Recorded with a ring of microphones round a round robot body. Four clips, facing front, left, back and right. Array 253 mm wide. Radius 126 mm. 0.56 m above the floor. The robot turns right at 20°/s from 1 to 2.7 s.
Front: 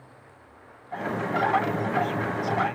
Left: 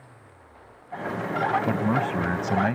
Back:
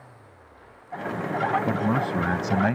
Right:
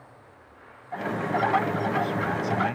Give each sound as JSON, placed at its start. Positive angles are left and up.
{"t": 1.6, "sound": "a man speaking", "azimuth_deg": 130}